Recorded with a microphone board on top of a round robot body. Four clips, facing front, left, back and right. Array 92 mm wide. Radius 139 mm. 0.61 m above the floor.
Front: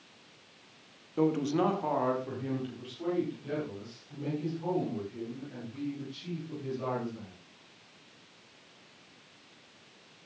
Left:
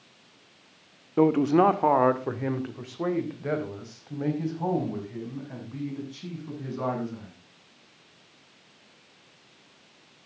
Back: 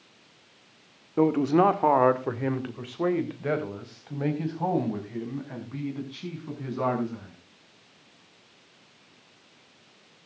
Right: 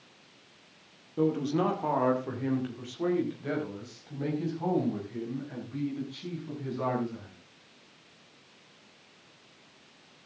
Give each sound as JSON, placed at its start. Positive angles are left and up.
{"t": 1.2, "sound": "a man speaking", "azimuth_deg": 125, "distance_m": 1.4}